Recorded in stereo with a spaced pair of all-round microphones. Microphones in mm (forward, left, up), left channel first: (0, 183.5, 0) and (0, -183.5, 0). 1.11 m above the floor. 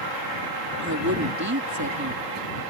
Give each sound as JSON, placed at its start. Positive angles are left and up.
{"t": 0.8, "sound": "a woman speaking", "side_deg": -50}